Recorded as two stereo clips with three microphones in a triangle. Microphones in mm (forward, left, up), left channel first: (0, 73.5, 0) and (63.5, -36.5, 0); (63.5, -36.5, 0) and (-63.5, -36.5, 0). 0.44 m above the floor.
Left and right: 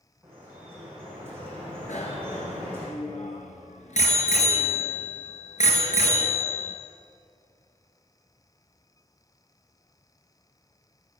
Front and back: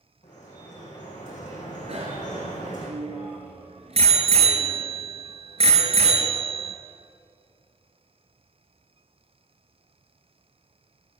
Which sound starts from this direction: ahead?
Dripping, at 0.2 s.